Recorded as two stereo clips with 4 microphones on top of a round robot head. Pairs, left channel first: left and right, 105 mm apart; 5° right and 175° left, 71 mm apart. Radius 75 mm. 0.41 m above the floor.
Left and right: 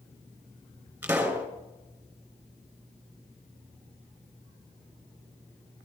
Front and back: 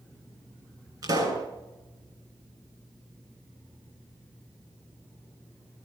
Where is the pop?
165° right, 2.5 m.